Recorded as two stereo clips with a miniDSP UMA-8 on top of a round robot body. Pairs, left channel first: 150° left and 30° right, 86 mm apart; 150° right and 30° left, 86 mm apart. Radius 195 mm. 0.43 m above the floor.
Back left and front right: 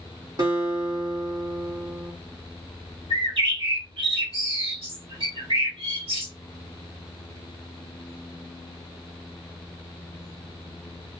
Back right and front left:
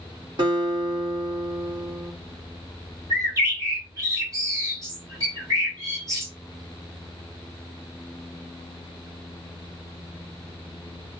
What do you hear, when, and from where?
0.4 s a guitar: straight ahead, 1.9 m
3.1 s a bird: 25° right, 2.0 m